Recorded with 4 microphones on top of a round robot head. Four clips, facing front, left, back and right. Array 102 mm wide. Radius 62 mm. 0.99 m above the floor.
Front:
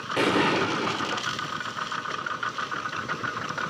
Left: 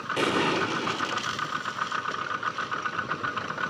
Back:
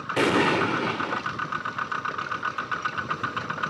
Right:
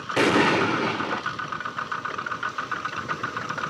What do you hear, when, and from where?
0.2 s an explosion: 95° right, 0.7 m